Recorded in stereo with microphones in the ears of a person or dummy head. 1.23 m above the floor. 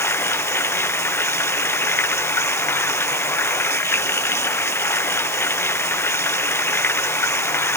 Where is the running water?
15° left (ahead or behind).